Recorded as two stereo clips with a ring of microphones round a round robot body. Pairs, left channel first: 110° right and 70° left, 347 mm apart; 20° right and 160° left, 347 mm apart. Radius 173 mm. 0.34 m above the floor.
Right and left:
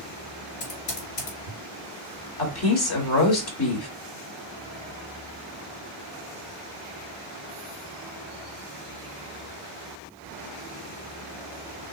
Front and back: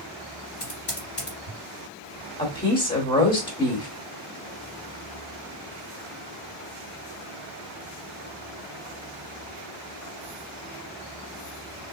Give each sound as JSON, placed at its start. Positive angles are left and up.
{"t": 0.6, "sound": "typing on a keyboard", "azimuth_deg": -70, "distance_m": 2.5}
{"t": 2.4, "sound": "a woman speaking", "azimuth_deg": -90, "distance_m": 1.3}